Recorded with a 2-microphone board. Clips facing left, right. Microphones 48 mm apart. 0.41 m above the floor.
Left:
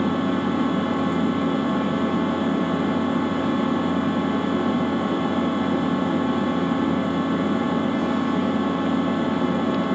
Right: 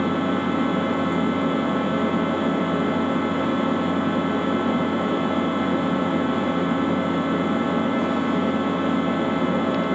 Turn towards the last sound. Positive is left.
turn(degrees=-30)  # may be behind; listen again after turning